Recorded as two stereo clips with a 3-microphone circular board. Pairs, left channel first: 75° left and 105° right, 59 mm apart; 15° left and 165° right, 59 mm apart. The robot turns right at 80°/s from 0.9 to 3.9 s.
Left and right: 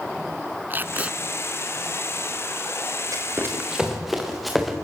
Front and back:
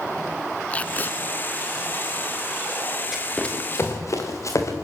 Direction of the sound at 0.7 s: 50° right.